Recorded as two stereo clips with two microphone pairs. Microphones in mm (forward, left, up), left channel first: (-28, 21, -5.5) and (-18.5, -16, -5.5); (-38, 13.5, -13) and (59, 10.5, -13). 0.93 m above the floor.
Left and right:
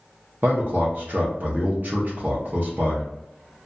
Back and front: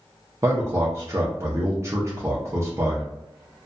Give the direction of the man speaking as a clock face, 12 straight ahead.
2 o'clock.